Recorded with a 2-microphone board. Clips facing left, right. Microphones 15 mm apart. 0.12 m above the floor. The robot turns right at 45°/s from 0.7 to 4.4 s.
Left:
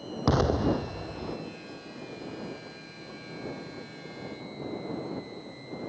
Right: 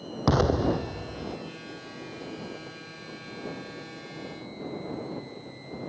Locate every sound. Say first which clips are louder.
0.3 s an explosion: right 1 dB; 5° right; by 1.4 s 25° left